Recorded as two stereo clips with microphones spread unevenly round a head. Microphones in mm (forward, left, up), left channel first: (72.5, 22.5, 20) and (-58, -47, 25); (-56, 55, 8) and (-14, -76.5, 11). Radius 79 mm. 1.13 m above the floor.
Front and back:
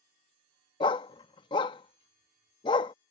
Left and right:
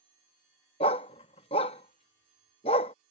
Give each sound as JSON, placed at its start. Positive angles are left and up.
{"t": 0.8, "sound": "a dog barking", "azimuth_deg": 80}